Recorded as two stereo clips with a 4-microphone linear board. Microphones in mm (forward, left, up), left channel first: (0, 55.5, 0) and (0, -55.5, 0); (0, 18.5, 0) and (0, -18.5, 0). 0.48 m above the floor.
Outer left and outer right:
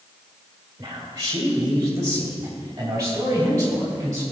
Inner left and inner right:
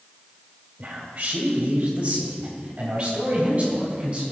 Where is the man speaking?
40° right (ahead or behind), 1.8 m; by 4.2 s 25° right (ahead or behind), 5 m.